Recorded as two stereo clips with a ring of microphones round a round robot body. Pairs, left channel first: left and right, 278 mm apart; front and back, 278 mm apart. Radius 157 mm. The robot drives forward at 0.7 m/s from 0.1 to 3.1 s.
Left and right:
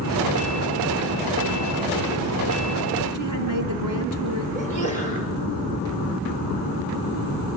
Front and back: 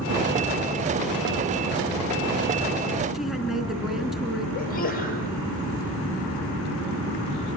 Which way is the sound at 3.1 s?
90° right.